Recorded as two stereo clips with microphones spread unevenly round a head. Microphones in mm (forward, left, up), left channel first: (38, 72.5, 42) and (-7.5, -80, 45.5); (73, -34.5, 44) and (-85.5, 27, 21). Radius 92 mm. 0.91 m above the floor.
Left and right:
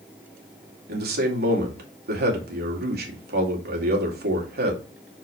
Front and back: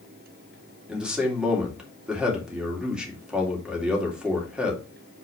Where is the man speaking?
120° right, 2 m.